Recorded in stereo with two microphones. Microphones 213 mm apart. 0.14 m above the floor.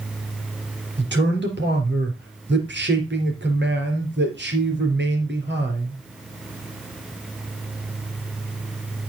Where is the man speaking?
55° right (ahead or behind), 3.5 m.